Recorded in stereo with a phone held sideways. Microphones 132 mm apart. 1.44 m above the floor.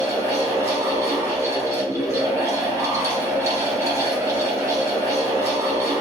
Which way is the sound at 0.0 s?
20° right (ahead or behind).